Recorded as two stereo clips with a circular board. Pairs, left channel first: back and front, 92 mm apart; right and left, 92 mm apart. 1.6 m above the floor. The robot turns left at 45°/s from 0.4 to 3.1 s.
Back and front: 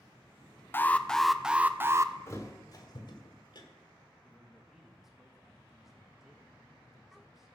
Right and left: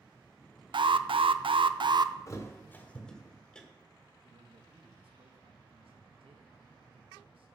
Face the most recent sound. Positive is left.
turn(degrees=85)